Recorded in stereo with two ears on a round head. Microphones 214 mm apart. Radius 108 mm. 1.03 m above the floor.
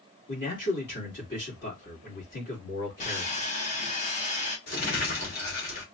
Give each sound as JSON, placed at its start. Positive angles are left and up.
{"t": 0.3, "sound": "a man speaking", "side_deg": 45, "distance_m": 3.0}
{"t": 3.0, "sound": "sawing", "side_deg": 30, "distance_m": 2.0}
{"t": 4.7, "sound": "crumpling", "side_deg": 40, "distance_m": 2.5}